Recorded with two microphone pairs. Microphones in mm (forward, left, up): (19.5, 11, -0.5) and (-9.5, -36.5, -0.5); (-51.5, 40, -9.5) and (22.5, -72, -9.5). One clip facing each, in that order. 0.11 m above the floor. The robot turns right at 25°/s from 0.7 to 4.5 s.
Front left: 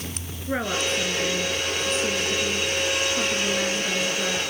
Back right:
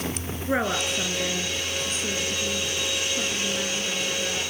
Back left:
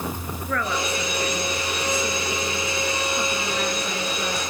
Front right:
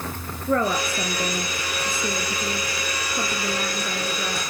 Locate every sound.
0.5 s a woman speaking: 65° right, 1.8 m; by 4.4 s 30° left, 1.8 m